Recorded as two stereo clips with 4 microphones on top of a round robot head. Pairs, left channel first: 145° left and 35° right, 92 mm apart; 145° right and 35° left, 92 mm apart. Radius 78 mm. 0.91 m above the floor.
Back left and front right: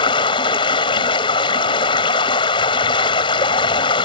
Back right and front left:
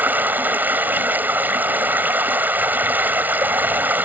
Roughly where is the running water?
Left.